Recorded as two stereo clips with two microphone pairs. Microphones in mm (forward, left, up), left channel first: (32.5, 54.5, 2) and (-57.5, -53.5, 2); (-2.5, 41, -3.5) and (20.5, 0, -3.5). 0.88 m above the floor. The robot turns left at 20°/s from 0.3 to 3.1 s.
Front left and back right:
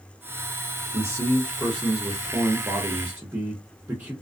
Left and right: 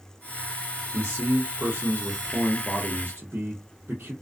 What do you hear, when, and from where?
0.9 s a man speaking: 15° right, 0.8 m; by 4.1 s 60° right, 0.8 m